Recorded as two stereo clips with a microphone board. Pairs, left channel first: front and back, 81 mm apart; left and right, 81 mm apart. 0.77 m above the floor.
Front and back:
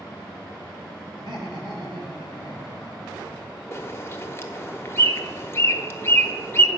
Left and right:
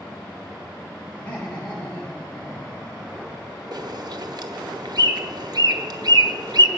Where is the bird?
55° right, 0.8 m.